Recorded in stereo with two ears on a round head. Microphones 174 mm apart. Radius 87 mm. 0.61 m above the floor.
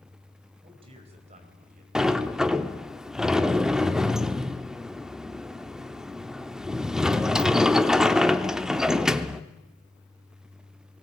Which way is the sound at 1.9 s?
5° right (ahead or behind).